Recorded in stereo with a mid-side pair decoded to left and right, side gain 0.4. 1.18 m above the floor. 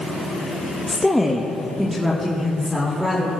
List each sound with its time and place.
0.9 s a woman speaking: 15° left, 1.0 m; by 3.3 s 10° right, 4 m